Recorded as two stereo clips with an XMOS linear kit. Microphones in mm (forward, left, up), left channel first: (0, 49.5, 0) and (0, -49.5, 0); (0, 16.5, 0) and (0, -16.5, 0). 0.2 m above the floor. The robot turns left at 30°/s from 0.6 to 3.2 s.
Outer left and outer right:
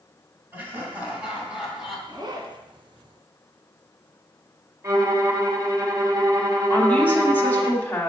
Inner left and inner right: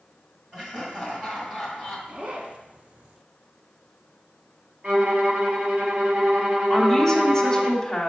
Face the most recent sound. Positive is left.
turn(degrees=15)  # may be behind; listen again after turning